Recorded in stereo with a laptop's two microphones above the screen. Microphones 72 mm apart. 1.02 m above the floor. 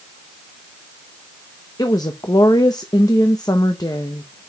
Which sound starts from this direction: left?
A woman speaking, at 1.8 s.